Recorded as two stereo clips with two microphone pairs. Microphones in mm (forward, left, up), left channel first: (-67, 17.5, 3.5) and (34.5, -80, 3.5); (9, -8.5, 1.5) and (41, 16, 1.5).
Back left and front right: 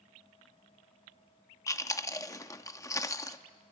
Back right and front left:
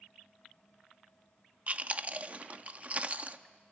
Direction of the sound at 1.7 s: 75° left.